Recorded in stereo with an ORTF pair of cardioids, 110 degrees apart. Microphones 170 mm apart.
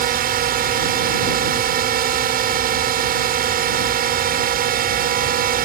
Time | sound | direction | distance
0.0 | a drone | 60° right | ?